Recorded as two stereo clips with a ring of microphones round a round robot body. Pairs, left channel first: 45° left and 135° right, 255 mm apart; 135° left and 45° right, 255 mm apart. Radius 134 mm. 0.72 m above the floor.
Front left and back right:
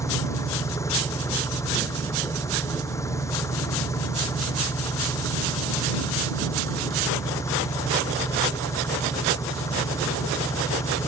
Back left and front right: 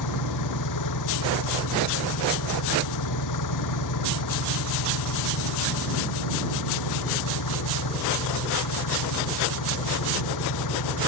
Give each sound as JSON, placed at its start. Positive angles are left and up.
{"t": 0.0, "sound": "an engine running", "azimuth_deg": 125}